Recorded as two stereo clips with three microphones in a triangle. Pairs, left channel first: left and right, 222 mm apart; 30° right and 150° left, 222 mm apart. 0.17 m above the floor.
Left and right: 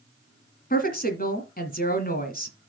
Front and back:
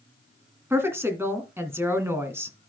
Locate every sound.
0.7 s a woman speaking: 75° left, 1.8 m